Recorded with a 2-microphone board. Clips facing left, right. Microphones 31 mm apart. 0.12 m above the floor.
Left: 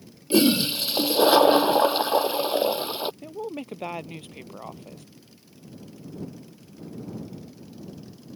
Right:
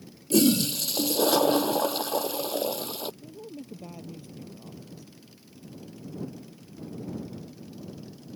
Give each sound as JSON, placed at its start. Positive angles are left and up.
{"t": 0.3, "sound": "a toilet flushing", "side_deg": 30}
{"t": 3.2, "sound": "a woman speaking", "side_deg": 60}